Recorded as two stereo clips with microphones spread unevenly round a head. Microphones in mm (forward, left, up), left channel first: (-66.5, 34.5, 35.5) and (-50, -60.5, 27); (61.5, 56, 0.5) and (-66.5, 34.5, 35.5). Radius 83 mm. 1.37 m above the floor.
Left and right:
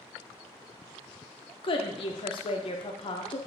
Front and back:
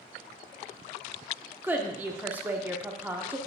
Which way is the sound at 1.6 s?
120° left.